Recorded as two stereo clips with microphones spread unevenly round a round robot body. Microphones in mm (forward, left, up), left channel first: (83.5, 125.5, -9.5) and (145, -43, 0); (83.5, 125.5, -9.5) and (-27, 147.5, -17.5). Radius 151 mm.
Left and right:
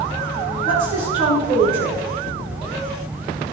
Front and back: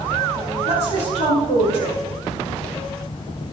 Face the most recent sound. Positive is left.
turn(degrees=-80)